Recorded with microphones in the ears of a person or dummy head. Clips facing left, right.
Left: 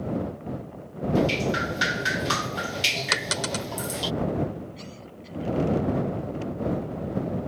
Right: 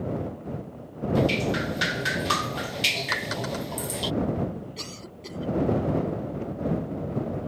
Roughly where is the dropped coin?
Left.